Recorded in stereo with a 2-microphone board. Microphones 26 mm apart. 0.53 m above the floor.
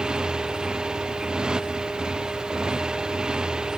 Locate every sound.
0.0 s a motorcycle: 35° right (ahead or behind)